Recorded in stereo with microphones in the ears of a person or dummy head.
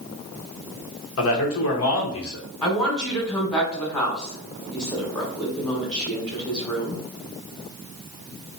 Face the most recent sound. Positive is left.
turn(degrees=15)  # may be behind; listen again after turning